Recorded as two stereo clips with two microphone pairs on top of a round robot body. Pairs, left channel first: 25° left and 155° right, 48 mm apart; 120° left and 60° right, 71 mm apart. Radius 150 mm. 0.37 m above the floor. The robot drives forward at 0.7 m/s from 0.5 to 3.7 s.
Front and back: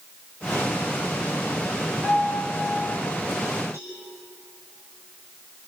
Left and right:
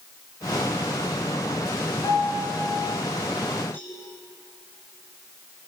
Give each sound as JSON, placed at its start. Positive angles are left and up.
{"t": 2.0, "sound": "a piano", "azimuth_deg": 145, "distance_m": 7.5}
{"t": 3.7, "sound": "a cowbell", "azimuth_deg": -175, "distance_m": 9.5}